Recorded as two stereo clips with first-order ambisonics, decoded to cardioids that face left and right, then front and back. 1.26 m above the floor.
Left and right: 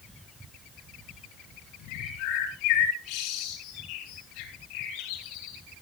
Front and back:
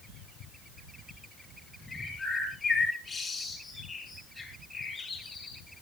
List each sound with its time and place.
1.9 s a bird: 75° left, 5 m